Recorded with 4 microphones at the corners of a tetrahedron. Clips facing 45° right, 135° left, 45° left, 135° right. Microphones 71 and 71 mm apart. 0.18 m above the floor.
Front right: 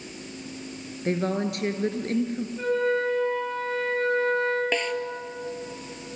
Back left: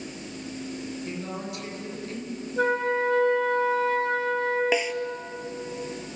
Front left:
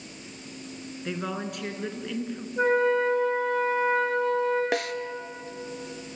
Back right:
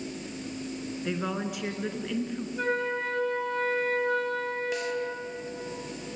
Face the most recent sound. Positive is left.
turn(degrees=55)